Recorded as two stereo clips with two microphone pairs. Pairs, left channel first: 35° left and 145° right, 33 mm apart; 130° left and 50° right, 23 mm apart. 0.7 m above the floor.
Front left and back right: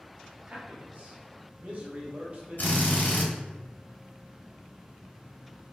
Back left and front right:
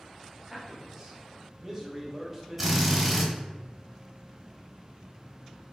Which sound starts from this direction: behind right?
A man speaking, at 0.5 s.